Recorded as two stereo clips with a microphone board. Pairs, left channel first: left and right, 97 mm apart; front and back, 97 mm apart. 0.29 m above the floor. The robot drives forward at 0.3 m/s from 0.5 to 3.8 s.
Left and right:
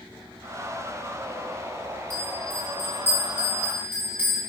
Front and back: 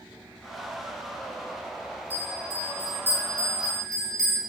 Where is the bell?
125° right, 1.6 m; by 4.4 s 145° right, 1.9 m.